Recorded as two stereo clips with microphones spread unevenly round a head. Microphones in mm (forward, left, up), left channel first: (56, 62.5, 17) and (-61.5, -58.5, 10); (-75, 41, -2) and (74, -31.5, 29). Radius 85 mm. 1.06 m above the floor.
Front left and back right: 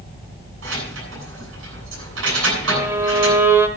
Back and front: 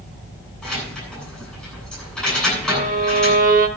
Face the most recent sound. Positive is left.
turn(degrees=-55)